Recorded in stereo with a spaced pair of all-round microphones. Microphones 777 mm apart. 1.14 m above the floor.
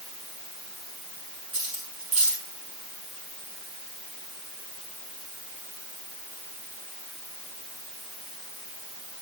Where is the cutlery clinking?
80° right, 7.5 m.